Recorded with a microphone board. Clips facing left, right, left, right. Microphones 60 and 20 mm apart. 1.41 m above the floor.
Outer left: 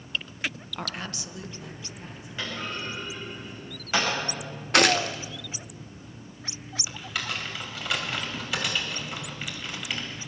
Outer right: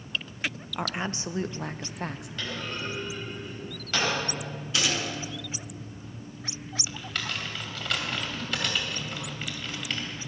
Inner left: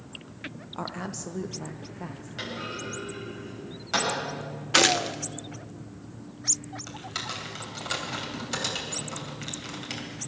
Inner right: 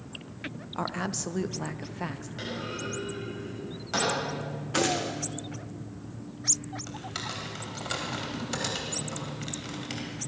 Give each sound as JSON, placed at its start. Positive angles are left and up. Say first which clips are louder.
{"t": 0.8, "sound": "a woman speaking", "louder": "outer right 4 dB, inner right 3 dB", "side_deg": -10, "distance_m": 0.7}
{"t": 2.4, "sound": "a clunk", "louder": "outer left 2 dB, inner left 1 dB", "side_deg": 15, "distance_m": 7.5}
{"t": 4.7, "sound": "a gunshot", "louder": "outer left 8 dB, inner left 6 dB", "side_deg": 60, "distance_m": 0.7}
{"t": 6.9, "sound": "typing on a keyboard", "louder": "outer left 2 dB, inner left 3 dB", "side_deg": 5, "distance_m": 3.0}